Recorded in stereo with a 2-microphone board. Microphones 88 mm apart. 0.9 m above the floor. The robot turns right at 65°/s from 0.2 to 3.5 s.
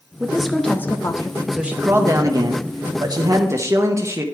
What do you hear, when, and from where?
0.2 s a woman speaking: 20° right, 1.0 m; by 1.4 s 60° left, 1.0 m
1.5 s a man speaking: 175° right, 0.8 m; by 4.2 s 45° right, 0.8 m